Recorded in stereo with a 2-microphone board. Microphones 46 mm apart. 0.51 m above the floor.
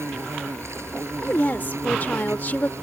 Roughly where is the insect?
Right.